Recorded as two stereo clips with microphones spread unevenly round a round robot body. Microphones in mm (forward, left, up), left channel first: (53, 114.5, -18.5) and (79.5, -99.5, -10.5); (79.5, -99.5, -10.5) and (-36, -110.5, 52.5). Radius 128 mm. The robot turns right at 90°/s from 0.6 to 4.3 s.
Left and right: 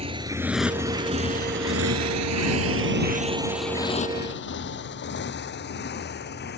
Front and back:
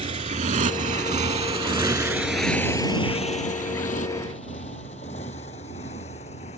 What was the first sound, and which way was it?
A motorcycle, 150° right.